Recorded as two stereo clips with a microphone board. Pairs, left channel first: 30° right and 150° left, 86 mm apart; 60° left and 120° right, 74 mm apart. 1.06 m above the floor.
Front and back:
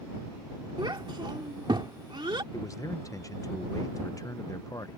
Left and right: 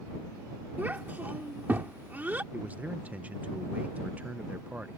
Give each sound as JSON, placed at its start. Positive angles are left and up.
{"t": 0.8, "sound": "a child speaking", "azimuth_deg": 175}
{"t": 2.5, "sound": "a man speaking", "azimuth_deg": -60}